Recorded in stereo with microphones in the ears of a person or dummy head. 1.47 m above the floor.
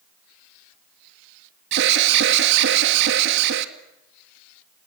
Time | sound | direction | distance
1.7 | an alarm | 60° right (ahead or behind) | 2 m